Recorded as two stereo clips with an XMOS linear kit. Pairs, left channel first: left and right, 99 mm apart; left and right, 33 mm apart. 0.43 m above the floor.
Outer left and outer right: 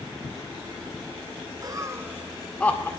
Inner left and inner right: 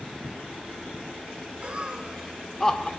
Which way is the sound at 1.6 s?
40° right (ahead or behind).